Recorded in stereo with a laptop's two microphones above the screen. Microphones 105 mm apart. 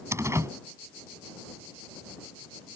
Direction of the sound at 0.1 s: 25° right (ahead or behind).